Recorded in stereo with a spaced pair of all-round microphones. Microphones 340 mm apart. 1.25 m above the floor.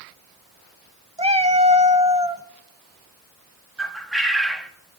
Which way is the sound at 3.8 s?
Centre (ahead or behind).